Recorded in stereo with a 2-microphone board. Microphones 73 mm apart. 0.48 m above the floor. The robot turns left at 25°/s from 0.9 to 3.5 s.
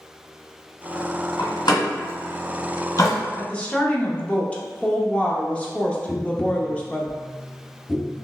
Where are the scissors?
No scissors in this recording.